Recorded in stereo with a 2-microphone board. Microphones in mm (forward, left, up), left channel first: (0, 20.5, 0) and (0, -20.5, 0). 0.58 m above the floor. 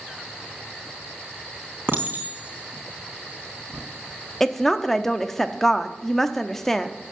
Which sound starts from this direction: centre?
A woman speaking, at 4.4 s.